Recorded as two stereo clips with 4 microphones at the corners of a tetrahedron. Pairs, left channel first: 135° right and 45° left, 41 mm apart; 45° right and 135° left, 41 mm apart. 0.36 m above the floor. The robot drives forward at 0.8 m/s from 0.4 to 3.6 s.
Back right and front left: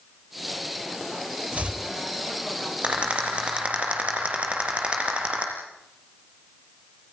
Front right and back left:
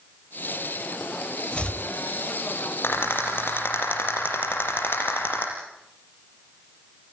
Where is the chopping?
5° left, 1.5 m.